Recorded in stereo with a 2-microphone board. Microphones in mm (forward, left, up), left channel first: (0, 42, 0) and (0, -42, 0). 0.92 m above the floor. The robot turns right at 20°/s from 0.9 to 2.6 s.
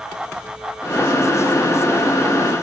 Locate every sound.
Only background noise.